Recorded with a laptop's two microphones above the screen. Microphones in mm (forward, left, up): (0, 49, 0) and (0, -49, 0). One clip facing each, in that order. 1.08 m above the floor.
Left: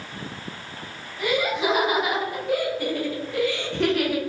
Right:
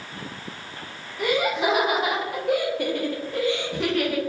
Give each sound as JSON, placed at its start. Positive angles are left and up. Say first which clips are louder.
{"t": 1.2, "sound": "laughter", "louder": "right 1 dB", "side_deg": -70, "distance_m": 1.6}